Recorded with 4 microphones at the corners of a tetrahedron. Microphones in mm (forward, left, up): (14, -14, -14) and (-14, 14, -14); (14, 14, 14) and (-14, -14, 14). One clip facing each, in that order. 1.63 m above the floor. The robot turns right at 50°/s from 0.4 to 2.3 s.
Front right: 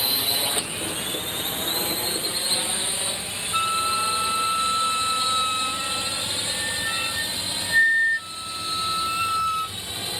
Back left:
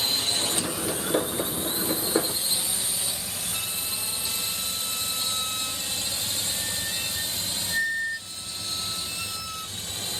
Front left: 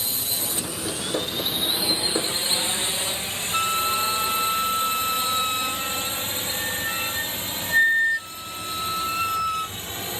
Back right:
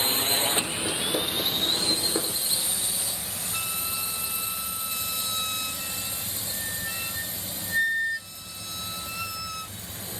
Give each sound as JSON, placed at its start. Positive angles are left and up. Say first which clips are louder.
{"t": 0.0, "sound": "a drone", "louder": "front right 2 dB, back right 5 dB", "azimuth_deg": -115}
{"t": 3.5, "sound": "a flute", "louder": "front right 16 dB, front left 12 dB", "azimuth_deg": -5}